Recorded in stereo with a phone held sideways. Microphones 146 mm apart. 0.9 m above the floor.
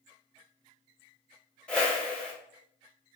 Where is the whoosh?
5° left (ahead or behind), 1.2 m.